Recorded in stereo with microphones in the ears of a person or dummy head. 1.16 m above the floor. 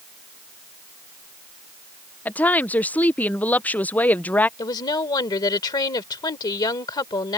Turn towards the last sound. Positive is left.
turn(degrees=25)  # may be behind; listen again after turning